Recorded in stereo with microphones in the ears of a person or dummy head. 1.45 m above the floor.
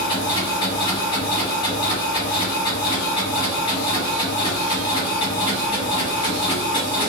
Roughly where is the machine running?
Left.